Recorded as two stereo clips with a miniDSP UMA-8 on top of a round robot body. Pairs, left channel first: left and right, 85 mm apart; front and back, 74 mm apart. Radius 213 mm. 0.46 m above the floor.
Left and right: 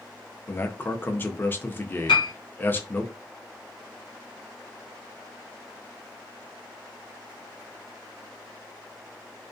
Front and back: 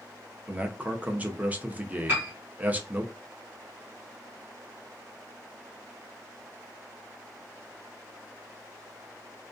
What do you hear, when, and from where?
0.5 s a man speaking: 130° left, 0.7 m
2.1 s a piano: 115° left, 0.6 m